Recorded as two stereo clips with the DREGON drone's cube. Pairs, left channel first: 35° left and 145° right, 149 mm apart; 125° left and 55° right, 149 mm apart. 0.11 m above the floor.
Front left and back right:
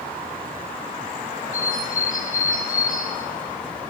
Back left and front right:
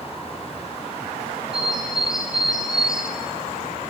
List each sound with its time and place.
1.5 s a bird: 30° left, 1.4 m